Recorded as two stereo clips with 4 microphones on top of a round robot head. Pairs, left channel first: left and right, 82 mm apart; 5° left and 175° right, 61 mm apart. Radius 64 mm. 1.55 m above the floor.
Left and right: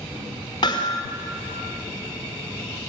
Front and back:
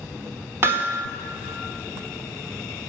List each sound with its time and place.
0.6 s hammering: 140° left, 2.5 m